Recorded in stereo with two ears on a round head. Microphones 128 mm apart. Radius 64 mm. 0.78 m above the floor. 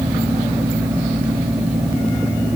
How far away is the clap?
I don't hear a clap.